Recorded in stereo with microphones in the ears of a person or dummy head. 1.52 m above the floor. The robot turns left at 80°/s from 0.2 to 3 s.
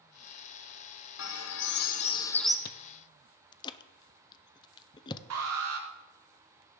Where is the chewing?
50° left (ahead or behind), 0.5 m; by 5.2 s 20° left (ahead or behind), 0.5 m.